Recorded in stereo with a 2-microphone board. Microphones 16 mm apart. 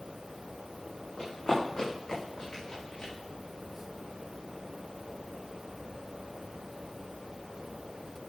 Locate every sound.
1.2 s running footsteps: 55° left (ahead or behind), 5 m; by 3.1 s 75° left (ahead or behind), 6.5 m